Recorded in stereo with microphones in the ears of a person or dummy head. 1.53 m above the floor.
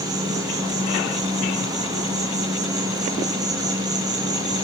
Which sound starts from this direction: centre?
An insect, at 0.0 s.